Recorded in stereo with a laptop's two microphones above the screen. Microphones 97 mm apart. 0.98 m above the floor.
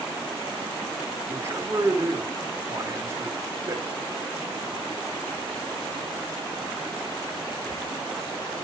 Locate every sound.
1.3 s a man speaking: 30° right (ahead or behind), 2.5 m